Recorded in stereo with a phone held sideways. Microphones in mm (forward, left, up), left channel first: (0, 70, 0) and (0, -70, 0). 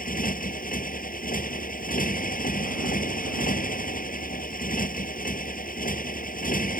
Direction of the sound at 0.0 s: 85° left.